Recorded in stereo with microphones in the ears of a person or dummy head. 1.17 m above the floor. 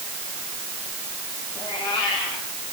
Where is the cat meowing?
20° left (ahead or behind), 9 m.